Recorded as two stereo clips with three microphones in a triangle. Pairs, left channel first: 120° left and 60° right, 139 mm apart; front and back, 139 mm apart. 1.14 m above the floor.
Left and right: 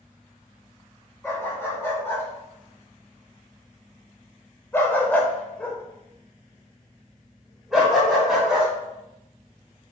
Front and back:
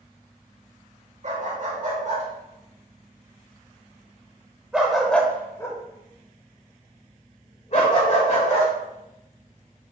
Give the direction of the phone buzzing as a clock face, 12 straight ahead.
I don't hear a phone buzzing.